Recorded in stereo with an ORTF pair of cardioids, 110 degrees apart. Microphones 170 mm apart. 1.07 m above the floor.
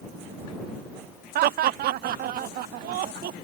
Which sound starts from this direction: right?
Laughter, at 1.4 s.